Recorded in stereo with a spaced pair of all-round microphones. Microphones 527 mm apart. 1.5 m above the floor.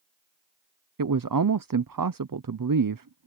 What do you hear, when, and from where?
1.0 s a man speaking: 40° right (ahead or behind)